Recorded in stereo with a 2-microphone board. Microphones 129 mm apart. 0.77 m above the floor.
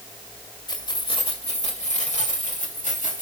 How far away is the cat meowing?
I don't hear a cat meowing.